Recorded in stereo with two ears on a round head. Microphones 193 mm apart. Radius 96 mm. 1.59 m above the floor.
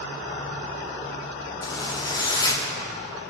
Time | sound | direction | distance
1.6 | a zipper | 20° left (ahead or behind) | 1.0 m